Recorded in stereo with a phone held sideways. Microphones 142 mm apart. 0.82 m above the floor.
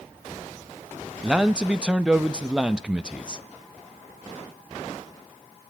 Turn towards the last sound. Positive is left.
turn(degrees=-5)  # may be behind; listen again after turning